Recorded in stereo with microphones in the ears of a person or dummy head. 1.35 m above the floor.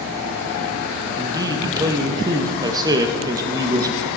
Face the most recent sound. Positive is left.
turn(degrees=-20)  # may be behind; listen again after turning